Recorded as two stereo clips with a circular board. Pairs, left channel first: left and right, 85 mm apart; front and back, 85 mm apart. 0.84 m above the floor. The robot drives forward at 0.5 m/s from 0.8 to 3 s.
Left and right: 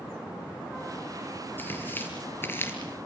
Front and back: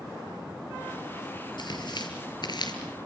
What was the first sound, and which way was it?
Tearing paper, 25° left.